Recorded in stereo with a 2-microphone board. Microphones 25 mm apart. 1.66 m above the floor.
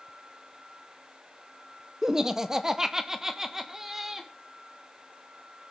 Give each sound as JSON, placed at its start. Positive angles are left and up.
{"t": 2.0, "sound": "laughter", "side_deg": -20, "distance_m": 0.6}